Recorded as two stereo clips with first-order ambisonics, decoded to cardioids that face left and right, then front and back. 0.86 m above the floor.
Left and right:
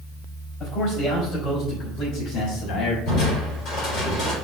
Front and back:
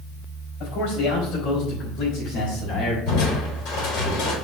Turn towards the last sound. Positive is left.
turn(degrees=40)